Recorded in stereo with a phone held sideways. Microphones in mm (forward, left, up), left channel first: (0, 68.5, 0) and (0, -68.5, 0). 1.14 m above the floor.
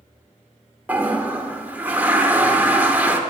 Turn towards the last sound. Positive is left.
turn(degrees=-10)  # may be behind; listen again after turning